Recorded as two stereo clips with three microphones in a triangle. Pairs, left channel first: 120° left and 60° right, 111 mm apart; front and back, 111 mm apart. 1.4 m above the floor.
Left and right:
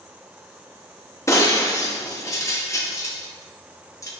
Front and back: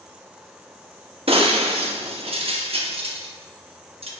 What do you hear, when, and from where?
1.3 s breaking glass: 175° left, 1.1 m